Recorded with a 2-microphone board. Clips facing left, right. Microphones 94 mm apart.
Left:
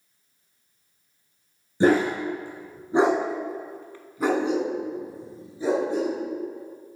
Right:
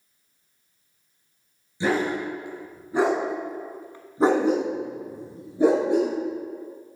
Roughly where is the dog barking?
Left.